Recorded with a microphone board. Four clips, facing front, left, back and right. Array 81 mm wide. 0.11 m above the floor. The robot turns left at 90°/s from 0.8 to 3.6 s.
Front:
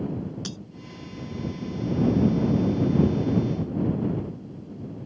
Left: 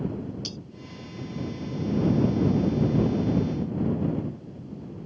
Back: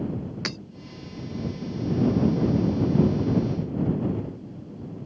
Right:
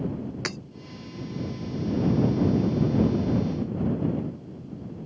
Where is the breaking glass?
120° right.